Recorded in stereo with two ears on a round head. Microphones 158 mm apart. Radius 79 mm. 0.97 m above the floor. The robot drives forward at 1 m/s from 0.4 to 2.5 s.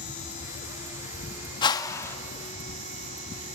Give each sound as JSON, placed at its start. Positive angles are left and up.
{"t": 1.6, "sound": "a whoosh", "side_deg": 25, "distance_m": 0.7}